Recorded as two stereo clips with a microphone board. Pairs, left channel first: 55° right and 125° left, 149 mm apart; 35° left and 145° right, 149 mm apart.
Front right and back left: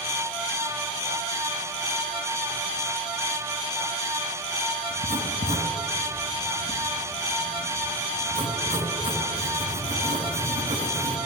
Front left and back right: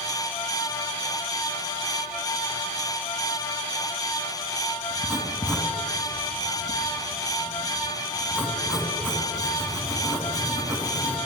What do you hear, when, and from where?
4.9 s writing: 130° left, 2.5 m